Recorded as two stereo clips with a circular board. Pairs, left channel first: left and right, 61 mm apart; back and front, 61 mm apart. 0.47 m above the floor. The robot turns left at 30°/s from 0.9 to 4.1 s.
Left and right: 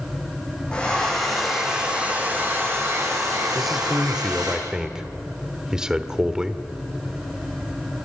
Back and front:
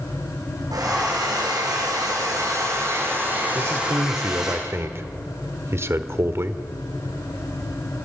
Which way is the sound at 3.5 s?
Straight ahead.